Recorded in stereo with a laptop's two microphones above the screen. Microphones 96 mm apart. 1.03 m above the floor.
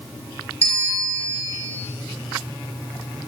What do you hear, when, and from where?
0.6 s a bell: 85° left, 2.5 m